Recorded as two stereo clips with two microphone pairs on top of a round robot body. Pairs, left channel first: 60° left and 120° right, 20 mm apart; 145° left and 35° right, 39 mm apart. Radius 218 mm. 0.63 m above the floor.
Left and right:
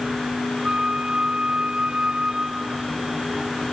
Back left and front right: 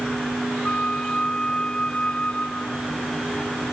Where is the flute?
150° right.